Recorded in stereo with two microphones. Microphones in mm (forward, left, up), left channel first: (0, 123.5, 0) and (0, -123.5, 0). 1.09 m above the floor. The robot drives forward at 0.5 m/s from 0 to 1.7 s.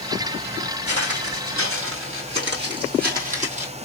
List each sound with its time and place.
0.9 s footsteps: 65° right (ahead or behind), 2.5 m; by 3.7 s 25° right (ahead or behind), 2.5 m